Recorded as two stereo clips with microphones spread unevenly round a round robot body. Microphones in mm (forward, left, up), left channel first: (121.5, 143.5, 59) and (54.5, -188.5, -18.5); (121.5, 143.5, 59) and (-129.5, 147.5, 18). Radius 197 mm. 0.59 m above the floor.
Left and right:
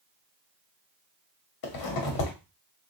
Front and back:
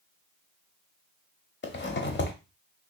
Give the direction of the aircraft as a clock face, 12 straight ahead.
I don't hear an aircraft.